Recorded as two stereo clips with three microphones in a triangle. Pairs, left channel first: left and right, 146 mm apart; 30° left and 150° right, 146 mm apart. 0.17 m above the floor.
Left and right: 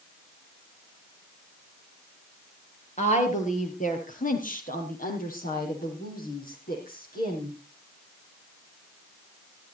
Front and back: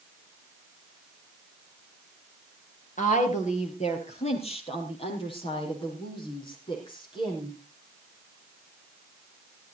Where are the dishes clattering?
No dishes clattering in this recording.